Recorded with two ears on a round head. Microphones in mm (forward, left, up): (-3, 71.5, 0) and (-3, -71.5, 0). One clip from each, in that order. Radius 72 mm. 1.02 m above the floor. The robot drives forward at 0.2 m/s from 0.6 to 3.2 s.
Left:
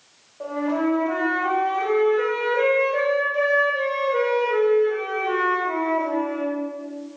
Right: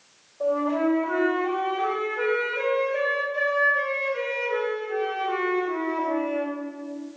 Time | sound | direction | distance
0.4 | a flute | 20° left (ahead or behind) | 2.5 m